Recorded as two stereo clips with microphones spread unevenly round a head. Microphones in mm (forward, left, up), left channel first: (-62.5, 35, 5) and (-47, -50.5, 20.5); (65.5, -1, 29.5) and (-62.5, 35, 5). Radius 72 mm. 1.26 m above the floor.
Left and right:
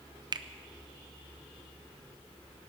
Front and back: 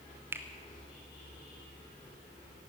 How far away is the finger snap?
About 0.7 m.